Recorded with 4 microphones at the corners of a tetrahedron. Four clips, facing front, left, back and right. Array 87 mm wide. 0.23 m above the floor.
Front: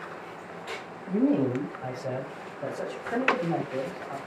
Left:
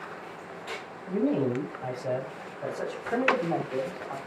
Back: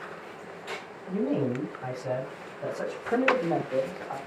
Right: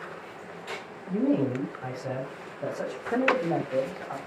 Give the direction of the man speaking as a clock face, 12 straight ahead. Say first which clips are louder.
Right 1 dB, front 3 dB; 12 o'clock.